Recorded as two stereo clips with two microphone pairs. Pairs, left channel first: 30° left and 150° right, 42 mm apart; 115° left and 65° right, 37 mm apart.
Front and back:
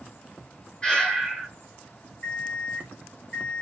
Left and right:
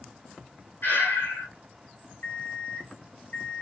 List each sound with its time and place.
0.8 s breathing: 95° left, 6.5 m
2.2 s an alarm clock: 90° left, 4.5 m